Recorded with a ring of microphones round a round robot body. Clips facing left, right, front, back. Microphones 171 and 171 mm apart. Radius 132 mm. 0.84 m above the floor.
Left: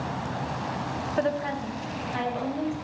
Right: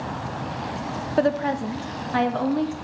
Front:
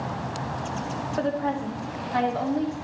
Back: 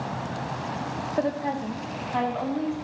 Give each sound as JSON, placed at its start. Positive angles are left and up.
{"t": 1.2, "sound": "a woman speaking", "azimuth_deg": -110, "distance_m": 0.7}